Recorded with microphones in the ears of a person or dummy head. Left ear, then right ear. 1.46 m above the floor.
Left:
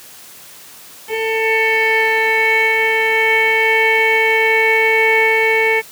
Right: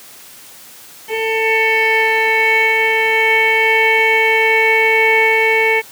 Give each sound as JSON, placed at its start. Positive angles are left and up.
{"t": 1.1, "sound": "a violin", "side_deg": 0}